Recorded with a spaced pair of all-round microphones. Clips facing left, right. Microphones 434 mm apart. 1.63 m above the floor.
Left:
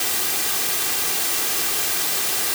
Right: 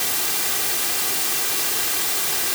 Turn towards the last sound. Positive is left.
No sound to turn to.